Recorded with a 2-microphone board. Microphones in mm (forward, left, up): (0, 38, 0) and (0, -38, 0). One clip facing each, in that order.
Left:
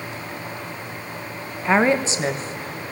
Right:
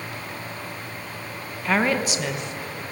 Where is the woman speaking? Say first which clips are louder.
Left 4 dB; 20° left (ahead or behind), 1.6 m; by 2.9 s 40° left (ahead or behind), 1.9 m.